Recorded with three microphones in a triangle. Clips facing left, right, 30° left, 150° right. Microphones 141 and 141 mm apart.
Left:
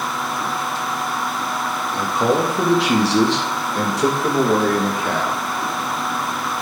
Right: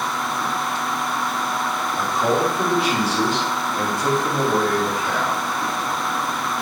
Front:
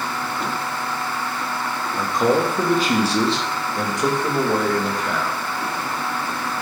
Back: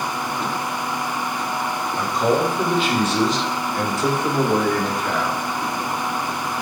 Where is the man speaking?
65° left, 2.5 m; by 5.4 s 130° left, 2 m.